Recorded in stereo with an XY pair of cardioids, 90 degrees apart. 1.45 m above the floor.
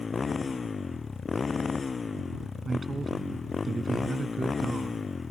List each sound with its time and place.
0.0 s a motorcycle: 35° left
2.6 s a man speaking: 35° right